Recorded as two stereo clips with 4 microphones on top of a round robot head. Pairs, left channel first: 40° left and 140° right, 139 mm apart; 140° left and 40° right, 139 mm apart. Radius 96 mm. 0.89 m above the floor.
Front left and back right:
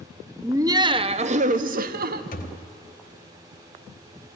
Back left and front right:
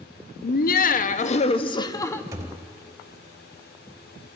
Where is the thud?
25° left, 0.8 m.